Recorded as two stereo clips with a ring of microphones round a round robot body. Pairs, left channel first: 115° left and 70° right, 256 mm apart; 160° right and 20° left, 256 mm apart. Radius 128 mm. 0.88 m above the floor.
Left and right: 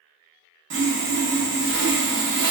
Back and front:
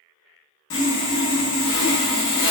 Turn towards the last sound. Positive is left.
turn(degrees=-115)